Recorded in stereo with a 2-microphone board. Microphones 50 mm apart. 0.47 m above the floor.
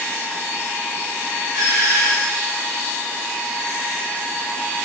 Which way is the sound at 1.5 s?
70° right (ahead or behind).